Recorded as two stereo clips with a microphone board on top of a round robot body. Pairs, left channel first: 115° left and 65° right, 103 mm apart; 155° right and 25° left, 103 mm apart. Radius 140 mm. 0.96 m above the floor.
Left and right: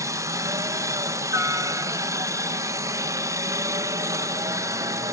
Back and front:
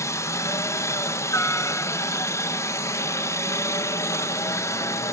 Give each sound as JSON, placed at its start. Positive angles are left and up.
{"t": 0.0, "sound": "a helicopter", "azimuth_deg": -110}